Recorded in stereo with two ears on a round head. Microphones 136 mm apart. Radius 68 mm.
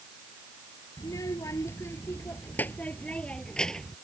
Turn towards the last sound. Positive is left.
turn(degrees=5)  # may be behind; listen again after turning